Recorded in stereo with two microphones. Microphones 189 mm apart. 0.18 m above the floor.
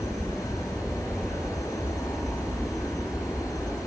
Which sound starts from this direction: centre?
An aircraft, at 0.0 s.